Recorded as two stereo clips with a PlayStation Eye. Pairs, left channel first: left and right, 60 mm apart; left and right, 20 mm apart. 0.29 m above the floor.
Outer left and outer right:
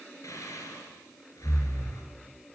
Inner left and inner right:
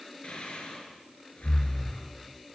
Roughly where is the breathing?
Left.